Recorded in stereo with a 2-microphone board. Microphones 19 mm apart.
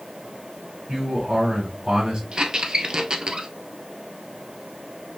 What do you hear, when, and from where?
0.9 s a man speaking: 50° right (ahead or behind), 3.5 m
2.3 s a squeak: 45° right (ahead or behind), 0.5 m